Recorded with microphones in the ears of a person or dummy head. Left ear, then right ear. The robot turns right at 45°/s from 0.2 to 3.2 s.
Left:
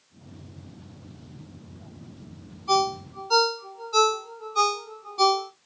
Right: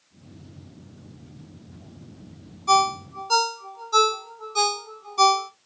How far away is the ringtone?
About 1.1 m.